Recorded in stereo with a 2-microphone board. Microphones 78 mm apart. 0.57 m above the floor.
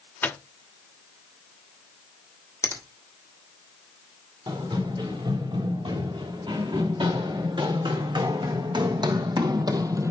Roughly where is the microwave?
Left.